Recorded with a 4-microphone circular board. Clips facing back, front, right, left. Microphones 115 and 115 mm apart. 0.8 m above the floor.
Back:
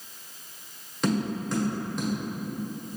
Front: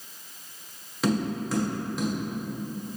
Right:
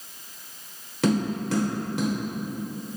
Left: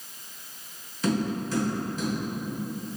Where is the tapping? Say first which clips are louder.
Front 1 dB, right 3 dB; 85° right, 0.9 m.